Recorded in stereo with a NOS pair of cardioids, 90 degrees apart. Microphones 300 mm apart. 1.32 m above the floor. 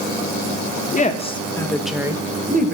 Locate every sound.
0.9 s a woman speaking: 25° left, 1.2 m; by 2.7 s 35° right, 1.0 m